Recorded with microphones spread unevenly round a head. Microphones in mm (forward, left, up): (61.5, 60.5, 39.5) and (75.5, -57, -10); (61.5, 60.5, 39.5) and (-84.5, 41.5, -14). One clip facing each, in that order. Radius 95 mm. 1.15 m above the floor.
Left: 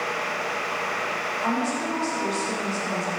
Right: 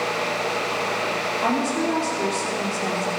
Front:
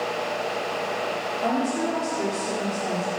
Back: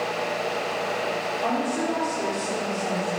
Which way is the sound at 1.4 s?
60° right.